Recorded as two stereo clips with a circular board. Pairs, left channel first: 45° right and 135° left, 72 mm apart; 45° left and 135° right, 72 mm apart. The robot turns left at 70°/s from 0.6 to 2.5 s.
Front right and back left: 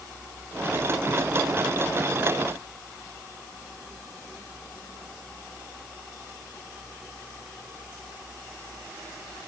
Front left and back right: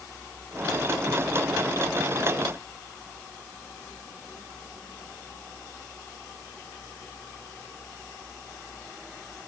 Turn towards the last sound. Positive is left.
No sound to turn to.